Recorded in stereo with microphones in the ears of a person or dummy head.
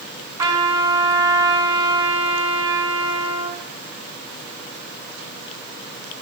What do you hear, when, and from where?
0.4 s a trumpet: 30° right (ahead or behind), 3.5 m